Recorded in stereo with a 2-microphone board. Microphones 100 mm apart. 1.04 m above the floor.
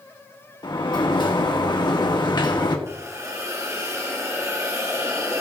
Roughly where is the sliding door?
Left.